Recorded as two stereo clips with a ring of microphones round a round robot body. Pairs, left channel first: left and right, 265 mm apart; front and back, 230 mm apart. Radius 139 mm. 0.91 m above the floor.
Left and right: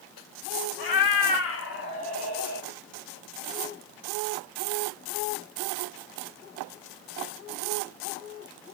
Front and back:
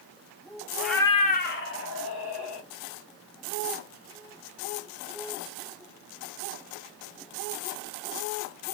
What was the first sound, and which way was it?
A cat meowing, 95° left.